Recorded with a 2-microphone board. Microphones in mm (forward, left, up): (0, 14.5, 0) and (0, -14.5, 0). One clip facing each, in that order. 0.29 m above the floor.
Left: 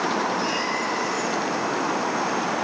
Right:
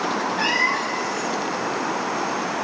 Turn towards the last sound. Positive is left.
turn(degrees=-50)  # may be behind; listen again after turning